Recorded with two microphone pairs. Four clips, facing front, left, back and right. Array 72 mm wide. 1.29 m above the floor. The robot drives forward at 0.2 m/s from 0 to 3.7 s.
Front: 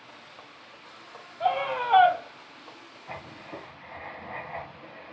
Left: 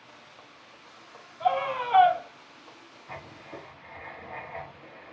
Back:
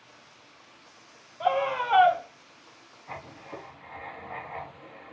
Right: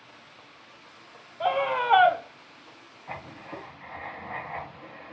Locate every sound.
1.4 s a scream: 90° right, 3 m; by 2.2 s 95° right, 3 m
3.1 s writing: 90° right, 2.5 m; by 5.1 s 95° right, 2.5 m